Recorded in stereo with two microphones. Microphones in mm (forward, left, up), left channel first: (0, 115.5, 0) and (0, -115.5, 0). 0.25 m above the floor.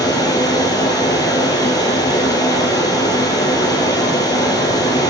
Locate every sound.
0.0 s running water: 15° left (ahead or behind), 1.7 m